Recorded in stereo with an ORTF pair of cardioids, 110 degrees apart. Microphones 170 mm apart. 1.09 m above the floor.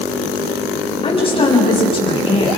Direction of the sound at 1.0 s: 35° left.